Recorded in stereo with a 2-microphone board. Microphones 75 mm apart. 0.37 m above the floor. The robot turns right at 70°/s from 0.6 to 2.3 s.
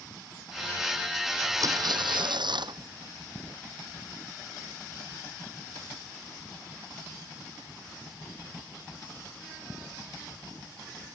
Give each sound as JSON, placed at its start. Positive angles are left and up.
{"t": 1.6, "sound": "tearing paper", "azimuth_deg": -135}